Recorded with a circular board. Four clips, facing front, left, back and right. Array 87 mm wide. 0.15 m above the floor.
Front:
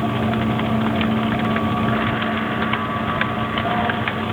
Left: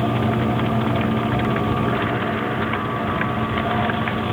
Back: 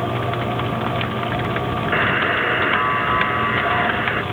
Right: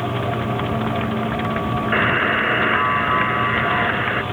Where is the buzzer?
130° right.